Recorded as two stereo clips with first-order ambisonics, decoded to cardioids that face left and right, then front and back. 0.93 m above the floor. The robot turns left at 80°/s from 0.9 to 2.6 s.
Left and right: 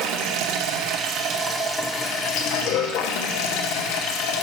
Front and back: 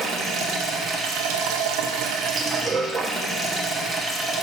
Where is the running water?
120° right, 0.8 m; by 4.4 s 100° left, 0.8 m.